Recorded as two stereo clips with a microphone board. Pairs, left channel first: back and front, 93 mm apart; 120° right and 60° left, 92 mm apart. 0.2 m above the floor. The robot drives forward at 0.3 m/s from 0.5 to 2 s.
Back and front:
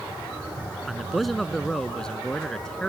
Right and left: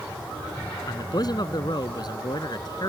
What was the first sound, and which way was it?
A man speaking, 90° right.